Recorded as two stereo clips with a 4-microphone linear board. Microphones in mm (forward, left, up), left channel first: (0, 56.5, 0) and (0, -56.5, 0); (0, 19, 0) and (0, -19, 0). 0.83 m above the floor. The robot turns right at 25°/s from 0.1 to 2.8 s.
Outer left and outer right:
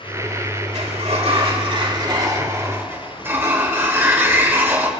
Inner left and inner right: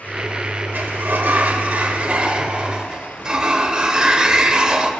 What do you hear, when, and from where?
0.7 s a sliding door: 70° right, 1.9 m; by 4.9 s 20° right, 1.9 m